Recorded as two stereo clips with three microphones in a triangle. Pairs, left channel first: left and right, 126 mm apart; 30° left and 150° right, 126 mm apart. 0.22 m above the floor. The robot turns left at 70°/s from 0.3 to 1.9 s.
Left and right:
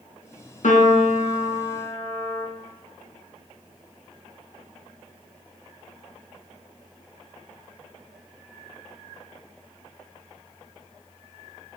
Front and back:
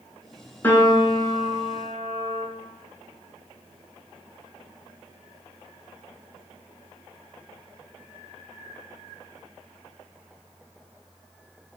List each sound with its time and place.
0.6 s a piano: 105° left, 0.6 m; by 2.5 s 15° left, 0.6 m